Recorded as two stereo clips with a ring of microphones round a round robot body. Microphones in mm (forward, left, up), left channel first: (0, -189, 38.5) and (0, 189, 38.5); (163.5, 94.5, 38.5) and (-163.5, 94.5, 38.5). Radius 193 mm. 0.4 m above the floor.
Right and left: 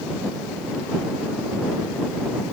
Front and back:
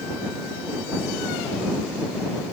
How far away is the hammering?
I don't hear hammering.